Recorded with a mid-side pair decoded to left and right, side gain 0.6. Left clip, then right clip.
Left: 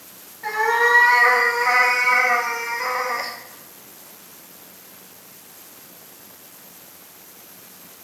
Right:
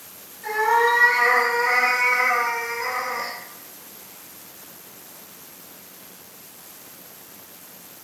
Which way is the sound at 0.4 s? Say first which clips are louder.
Left 1 dB; 40° left.